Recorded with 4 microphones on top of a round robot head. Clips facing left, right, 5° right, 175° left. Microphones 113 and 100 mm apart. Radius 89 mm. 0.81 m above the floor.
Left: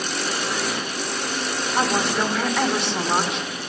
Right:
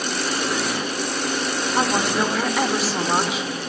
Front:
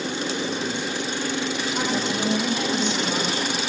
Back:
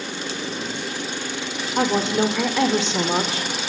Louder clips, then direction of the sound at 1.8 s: Right 1 dB, back 8 dB; 175° right.